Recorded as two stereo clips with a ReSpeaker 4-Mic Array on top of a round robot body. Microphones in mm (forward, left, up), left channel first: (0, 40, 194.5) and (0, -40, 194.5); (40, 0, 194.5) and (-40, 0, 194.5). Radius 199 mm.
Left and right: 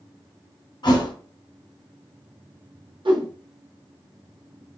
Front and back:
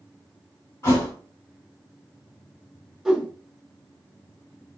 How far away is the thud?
About 2 m.